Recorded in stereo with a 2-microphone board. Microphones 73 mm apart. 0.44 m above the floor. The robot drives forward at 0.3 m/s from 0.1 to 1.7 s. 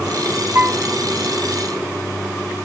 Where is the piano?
30° right (ahead or behind), 0.5 m; by 0.8 s 35° right (ahead or behind), 0.5 m.